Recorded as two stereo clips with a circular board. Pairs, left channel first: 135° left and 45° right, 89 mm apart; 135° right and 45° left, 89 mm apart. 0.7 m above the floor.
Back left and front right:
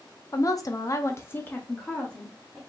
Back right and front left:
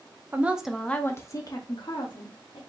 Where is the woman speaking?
105° left, 0.9 m; by 2.6 s 140° right, 1.8 m.